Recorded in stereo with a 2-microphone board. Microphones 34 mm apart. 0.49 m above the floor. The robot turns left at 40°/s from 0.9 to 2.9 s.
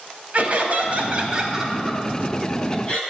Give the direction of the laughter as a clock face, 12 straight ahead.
5 o'clock.